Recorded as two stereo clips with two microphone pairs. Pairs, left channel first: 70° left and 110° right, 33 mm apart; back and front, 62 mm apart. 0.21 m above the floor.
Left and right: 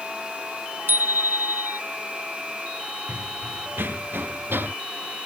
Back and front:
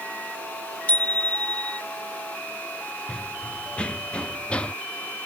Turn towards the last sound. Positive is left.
turn(degrees=-110)